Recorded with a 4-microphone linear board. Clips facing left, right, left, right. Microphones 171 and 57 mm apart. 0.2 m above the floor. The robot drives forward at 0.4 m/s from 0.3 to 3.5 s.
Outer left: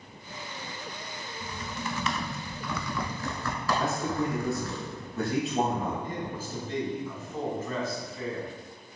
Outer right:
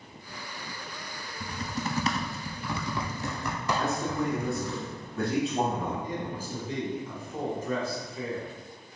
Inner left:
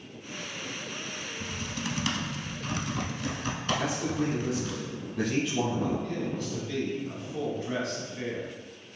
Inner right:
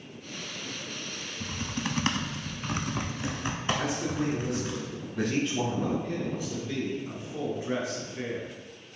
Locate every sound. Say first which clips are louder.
1.4 s typing on a keyboard: outer right 4 dB, inner right 3 dB; 35° right (ahead or behind), 0.5 m; by 4.8 s 20° right (ahead or behind), 0.9 m
3.8 s a man speaking: outer right 1 dB, even; centre (ahead or behind), 1.2 m
6.0 s a man speaking: outer right 1 dB, even; 10° right (ahead or behind), 1.3 m